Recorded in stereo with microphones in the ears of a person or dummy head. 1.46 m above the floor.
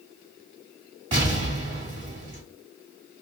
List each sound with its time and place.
1.1 s an explosion: 30° right (ahead or behind), 1.6 m